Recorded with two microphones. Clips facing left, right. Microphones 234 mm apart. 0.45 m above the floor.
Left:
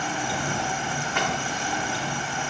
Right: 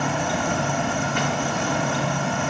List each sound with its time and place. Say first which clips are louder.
0.0 s an insect: right 5 dB; 65° right (ahead or behind)